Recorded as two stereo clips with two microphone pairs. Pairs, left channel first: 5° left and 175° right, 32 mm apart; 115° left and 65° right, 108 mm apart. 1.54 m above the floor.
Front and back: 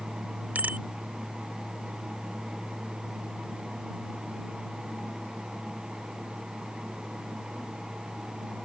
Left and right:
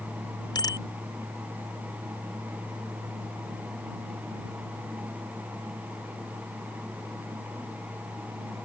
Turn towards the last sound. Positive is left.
turn(degrees=160)